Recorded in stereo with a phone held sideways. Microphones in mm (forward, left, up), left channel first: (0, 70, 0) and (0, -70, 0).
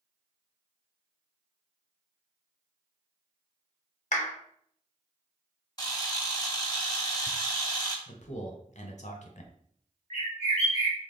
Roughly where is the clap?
Left.